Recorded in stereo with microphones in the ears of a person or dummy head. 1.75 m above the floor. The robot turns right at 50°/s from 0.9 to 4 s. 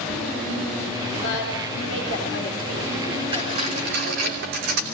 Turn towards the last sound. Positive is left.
turn(degrees=-115)